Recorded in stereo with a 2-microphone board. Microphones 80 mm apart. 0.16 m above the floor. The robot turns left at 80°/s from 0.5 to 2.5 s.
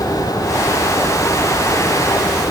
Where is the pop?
I don't hear a pop.